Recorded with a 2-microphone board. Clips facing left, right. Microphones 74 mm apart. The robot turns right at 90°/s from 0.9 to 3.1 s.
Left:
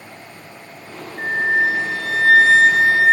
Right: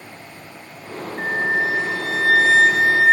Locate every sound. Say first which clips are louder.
1.2 s a flute: left 3 dB; 5° right, 1.6 m; by 3.1 s 170° left, 1.6 m